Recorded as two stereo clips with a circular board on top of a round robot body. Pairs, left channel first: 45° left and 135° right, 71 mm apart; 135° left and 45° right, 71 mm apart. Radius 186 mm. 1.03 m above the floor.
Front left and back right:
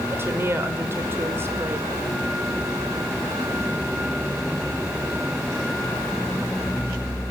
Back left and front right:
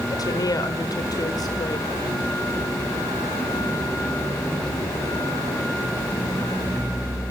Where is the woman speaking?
165° left, 4 m.